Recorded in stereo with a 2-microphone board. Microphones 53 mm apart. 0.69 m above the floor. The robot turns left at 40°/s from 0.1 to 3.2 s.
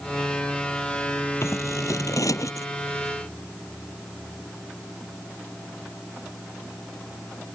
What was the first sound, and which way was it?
Scissors, 120° left.